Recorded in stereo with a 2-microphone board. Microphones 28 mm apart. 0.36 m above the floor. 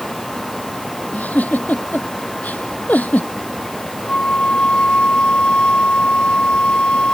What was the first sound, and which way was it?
A giggle, 85° left.